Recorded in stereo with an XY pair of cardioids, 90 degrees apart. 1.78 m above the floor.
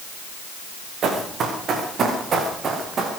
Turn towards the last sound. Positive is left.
turn(degrees=-55)